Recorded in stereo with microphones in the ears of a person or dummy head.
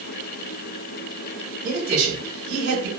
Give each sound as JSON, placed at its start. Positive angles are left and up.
{"t": 1.6, "sound": "a man speaking", "side_deg": -70, "distance_m": 1.4}